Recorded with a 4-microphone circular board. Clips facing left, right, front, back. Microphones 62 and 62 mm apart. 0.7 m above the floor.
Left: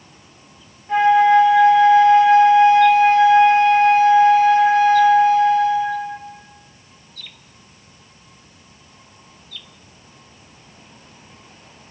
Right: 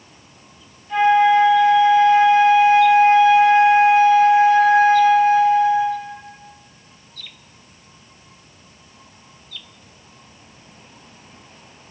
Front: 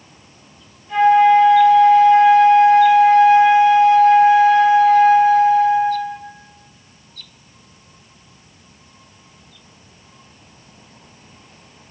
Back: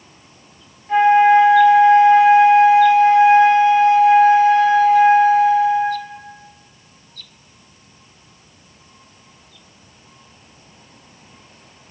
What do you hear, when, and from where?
0.9 s a flute: 125° left, 0.7 m